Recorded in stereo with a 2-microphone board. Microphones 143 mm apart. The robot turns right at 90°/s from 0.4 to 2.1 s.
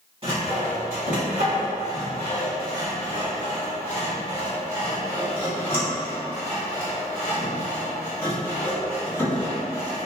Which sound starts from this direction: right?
Sawing, at 0.2 s.